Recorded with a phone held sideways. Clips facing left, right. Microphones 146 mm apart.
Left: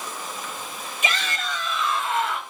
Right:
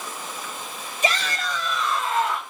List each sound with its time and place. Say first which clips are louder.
1.0 s a shout: right 4 dB; 35° right (ahead or behind), 7 m; by 2.4 s 40° right (ahead or behind), 6.5 m